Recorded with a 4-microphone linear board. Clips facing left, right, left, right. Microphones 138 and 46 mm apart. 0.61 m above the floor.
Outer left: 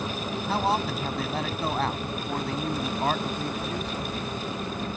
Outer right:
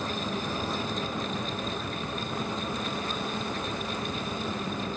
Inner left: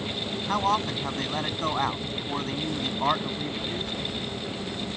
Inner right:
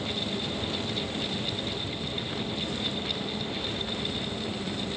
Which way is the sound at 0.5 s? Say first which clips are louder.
Outer left 6 dB, inner left 7 dB; 75° left (ahead or behind).